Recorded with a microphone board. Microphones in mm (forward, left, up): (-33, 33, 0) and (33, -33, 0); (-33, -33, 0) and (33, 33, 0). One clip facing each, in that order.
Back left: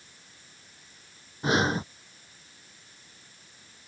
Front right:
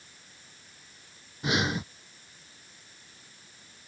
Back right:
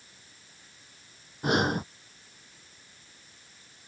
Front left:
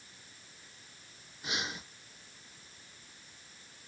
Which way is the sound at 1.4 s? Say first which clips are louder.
Back left 4 dB, back right 14 dB; 170° right.